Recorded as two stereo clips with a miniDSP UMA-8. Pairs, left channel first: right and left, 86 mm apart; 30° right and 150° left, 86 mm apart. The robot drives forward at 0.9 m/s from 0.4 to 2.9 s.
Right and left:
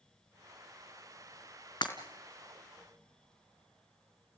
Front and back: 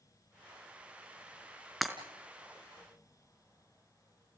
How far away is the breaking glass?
About 3 m.